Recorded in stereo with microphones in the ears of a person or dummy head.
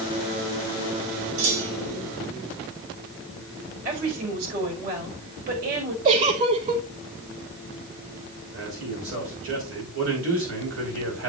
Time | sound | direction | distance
1.4 | a clunk | 85° right | 3.5 m
3.9 | a woman speaking | 55° right (ahead or behind) | 6.5 m
6.0 | a giggle | 35° right (ahead or behind) | 1.2 m
8.5 | a man speaking | 70° right (ahead or behind) | 4.5 m